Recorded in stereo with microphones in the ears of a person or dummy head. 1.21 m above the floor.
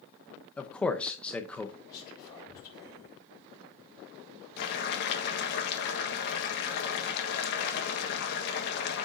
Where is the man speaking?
5° left (ahead or behind), 0.7 m.